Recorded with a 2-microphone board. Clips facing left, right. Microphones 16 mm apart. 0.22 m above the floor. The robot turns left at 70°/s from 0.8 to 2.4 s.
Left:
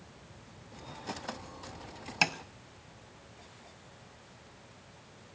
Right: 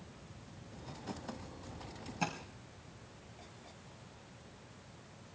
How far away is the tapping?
About 0.8 m.